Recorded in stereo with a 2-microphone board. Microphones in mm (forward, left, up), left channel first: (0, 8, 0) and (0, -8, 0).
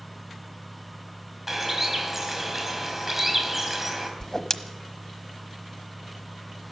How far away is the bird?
About 3.5 m.